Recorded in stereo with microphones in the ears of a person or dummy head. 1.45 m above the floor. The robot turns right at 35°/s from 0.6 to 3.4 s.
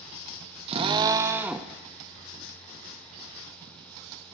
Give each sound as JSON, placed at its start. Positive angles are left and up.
{"t": 0.7, "sound": "a drill", "azimuth_deg": -40, "distance_m": 0.6}